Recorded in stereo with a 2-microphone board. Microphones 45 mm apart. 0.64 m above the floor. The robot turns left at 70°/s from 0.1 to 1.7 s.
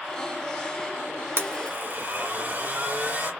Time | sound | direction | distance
1.4 | a blender | 65° right (ahead or behind) | 1.2 m